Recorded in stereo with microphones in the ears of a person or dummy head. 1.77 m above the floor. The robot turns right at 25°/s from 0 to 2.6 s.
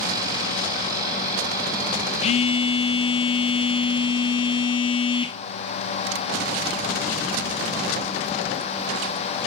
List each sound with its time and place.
2.2 s a phone buzzing: 35° left (ahead or behind), 0.9 m; by 5.4 s 30° left (ahead or behind), 0.9 m